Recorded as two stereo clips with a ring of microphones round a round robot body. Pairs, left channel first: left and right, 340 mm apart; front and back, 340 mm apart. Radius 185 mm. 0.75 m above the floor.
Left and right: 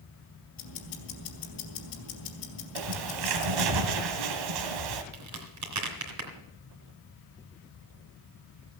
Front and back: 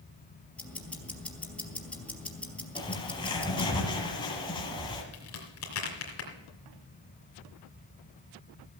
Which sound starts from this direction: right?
A bird, at 2.8 s.